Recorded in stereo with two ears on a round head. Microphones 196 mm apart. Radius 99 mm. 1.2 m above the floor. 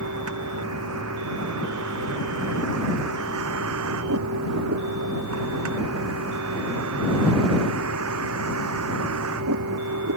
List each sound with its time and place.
0.0 s a vehicle: 80° right